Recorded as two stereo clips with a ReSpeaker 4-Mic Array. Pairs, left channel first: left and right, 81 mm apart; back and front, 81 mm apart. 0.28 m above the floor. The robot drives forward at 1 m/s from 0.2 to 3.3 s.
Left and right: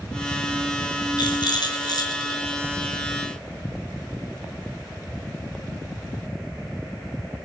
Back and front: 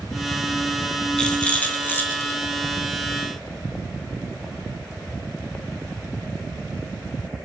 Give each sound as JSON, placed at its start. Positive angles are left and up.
{"t": 1.2, "sound": "a rattle", "azimuth_deg": 100, "distance_m": 3.0}